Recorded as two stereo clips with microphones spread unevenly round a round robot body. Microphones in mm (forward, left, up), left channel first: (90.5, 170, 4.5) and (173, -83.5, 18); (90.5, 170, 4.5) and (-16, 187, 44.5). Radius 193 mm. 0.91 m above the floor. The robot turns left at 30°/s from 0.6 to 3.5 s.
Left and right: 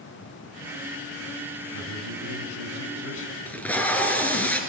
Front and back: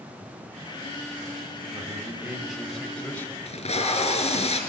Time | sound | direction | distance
1.7 | a man speaking | 110° left | 4.5 m
3.5 | tape being pulled | 25° left | 4.5 m